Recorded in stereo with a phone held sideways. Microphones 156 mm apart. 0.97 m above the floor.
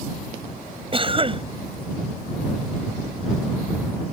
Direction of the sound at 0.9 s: 35° right (ahead or behind).